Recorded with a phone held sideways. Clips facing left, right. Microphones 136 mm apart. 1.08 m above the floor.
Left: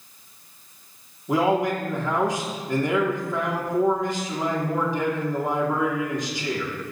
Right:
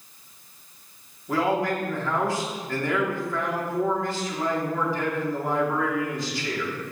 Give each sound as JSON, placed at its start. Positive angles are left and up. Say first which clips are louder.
{"t": 1.3, "sound": "a man speaking", "louder": "left 3 dB", "side_deg": 20, "distance_m": 3.0}